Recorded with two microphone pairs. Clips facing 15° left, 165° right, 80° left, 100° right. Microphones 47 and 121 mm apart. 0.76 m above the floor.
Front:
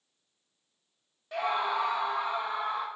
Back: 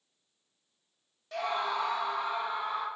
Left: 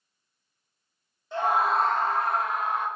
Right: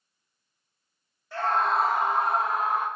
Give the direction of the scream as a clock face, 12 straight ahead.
10 o'clock.